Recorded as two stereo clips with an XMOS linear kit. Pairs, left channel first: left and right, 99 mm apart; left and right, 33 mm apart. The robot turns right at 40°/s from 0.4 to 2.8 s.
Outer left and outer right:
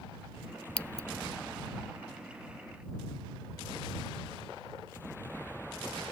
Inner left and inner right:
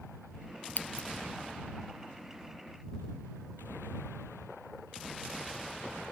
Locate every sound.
0.8 s scissors: 75° left (ahead or behind); by 1.1 s 85° left